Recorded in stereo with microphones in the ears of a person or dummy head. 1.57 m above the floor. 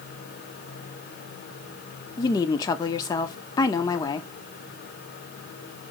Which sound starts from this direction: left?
A woman speaking, at 2.2 s.